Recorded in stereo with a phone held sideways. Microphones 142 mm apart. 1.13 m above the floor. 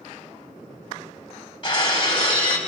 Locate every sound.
1.6 s breaking glass: 35° left (ahead or behind), 2.5 m